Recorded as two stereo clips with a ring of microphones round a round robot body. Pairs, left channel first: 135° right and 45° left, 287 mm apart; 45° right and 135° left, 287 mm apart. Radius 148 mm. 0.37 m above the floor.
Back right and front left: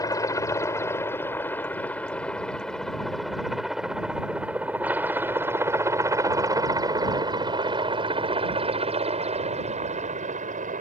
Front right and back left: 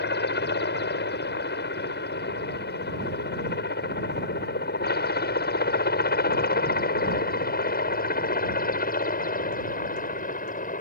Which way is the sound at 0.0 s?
65° right.